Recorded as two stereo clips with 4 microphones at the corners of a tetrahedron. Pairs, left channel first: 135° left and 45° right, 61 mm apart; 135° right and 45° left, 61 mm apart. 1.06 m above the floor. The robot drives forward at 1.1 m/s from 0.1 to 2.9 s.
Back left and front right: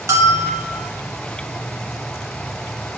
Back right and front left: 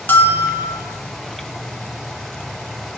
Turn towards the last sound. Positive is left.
turn(degrees=-160)